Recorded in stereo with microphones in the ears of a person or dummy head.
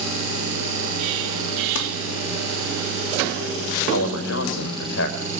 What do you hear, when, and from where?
1.8 s crumpling: 75° left (ahead or behind), 2.5 m
3.9 s a man speaking: 70° left (ahead or behind), 4 m